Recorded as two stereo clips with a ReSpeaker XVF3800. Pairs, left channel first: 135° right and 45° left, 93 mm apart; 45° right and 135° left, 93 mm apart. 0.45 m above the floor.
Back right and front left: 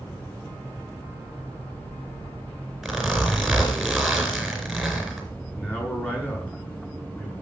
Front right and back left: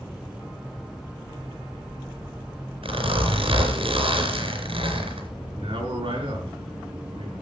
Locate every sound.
2.8 s a zipper: 135° left, 3.5 m
5.6 s a man speaking: 155° left, 6.5 m